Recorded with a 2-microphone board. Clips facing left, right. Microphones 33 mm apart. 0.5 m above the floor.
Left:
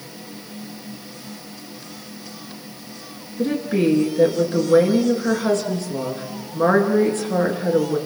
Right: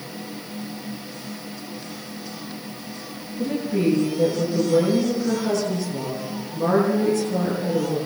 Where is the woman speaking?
60° left (ahead or behind), 7.5 m.